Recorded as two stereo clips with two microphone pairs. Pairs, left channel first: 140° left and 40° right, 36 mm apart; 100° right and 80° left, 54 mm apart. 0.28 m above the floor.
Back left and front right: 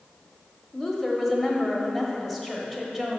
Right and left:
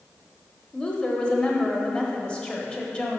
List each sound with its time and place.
0.7 s a woman speaking: 120° right, 0.9 m